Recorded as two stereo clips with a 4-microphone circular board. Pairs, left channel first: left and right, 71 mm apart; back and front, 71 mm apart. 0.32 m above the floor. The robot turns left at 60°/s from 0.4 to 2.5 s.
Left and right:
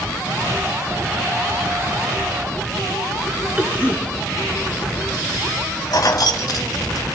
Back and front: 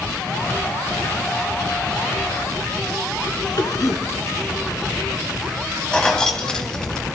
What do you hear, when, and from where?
3.6 s a cough: 160° right, 3.5 m
5.9 s keys jangling: 105° left, 1.5 m